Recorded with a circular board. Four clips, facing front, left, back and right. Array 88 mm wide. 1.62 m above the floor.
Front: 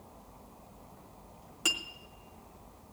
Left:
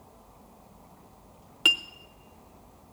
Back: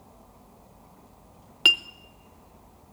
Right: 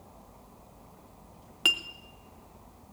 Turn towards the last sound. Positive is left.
turn(degrees=180)